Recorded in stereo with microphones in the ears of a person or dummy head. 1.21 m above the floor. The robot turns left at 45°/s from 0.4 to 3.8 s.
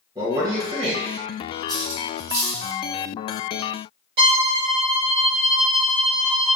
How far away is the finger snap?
No finger snap in this recording.